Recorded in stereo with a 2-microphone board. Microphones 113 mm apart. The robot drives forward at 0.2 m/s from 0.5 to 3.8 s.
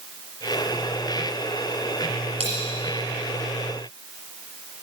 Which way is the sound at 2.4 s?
70° right (ahead or behind).